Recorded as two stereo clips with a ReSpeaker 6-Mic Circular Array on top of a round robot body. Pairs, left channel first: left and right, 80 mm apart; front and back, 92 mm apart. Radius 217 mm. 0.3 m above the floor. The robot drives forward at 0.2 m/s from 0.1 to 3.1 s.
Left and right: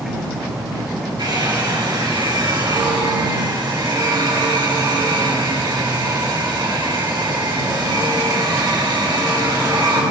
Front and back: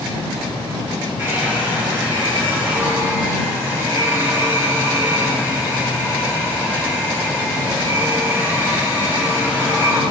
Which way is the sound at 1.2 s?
110° right.